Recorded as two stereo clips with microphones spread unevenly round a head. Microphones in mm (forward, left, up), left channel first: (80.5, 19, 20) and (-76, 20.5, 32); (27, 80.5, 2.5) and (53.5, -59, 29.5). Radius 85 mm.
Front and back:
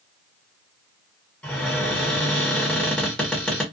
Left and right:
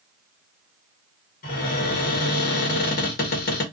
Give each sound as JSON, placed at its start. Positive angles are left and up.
{"t": 1.4, "sound": "a cupboard door", "azimuth_deg": 85, "distance_m": 1.3}